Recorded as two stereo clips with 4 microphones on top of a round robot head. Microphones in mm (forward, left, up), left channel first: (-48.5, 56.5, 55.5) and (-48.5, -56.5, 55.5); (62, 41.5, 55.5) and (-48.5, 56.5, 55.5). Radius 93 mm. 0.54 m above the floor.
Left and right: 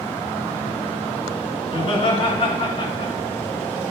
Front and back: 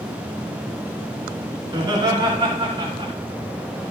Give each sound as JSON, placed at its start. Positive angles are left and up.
{"t": 1.7, "sound": "laughter", "azimuth_deg": 125, "distance_m": 6.5}